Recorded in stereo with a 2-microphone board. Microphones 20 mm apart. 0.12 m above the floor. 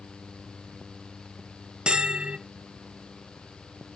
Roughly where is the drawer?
No drawer in this recording.